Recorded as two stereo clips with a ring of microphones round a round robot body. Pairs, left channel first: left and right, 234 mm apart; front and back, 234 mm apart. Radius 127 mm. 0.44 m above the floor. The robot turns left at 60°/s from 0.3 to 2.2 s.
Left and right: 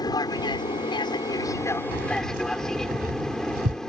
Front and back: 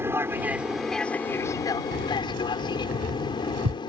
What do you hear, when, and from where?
0.0 s an aircraft: 120° left; by 3.9 s 10° left
1.9 s keys jangling: 130° right; by 3.8 s 145° right